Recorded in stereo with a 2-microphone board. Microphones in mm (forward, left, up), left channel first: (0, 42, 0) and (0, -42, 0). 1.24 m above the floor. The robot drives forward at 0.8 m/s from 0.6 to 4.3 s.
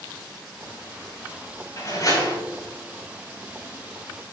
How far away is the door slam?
About 5.5 m.